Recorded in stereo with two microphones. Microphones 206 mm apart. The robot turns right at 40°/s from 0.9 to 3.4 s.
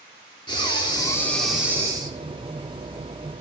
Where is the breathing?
155° left, 3 m; by 2.4 s 145° right, 3 m.